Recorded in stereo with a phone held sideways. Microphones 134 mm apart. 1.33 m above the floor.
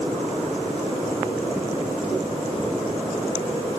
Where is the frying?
No frying in this recording.